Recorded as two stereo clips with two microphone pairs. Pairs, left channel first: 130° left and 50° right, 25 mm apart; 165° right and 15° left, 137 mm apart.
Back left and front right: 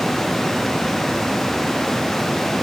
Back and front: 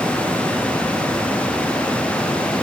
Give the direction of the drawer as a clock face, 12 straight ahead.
No drawer in this recording.